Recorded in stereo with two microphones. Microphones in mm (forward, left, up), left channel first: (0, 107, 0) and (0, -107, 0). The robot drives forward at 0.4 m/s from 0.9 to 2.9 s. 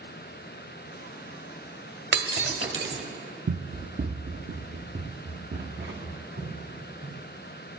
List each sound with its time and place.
2.1 s breaking glass: 55° right (ahead or behind), 1.3 m; by 3.0 s 65° right (ahead or behind), 1.2 m
3.5 s running footsteps: 45° right (ahead or behind), 0.6 m; by 7.2 s 55° right (ahead or behind), 4 m